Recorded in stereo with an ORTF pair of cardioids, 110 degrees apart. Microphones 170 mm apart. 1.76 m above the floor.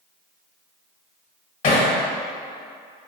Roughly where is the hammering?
Ahead left.